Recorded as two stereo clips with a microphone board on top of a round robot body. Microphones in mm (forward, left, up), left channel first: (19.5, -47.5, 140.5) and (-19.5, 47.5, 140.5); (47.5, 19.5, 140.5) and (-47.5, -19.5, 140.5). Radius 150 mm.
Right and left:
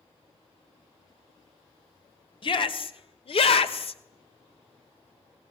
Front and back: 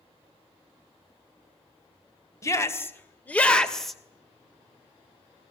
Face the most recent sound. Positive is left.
turn(degrees=-70)